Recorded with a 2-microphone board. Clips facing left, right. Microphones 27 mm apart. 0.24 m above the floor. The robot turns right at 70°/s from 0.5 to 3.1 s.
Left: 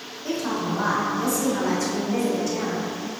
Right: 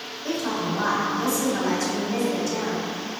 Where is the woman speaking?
20° right (ahead or behind), 1.2 m; by 2.9 s 15° left (ahead or behind), 1.2 m.